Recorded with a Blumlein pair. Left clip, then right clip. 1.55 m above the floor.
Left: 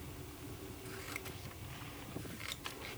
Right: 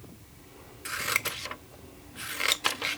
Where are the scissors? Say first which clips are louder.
Right 18 dB; 50° right.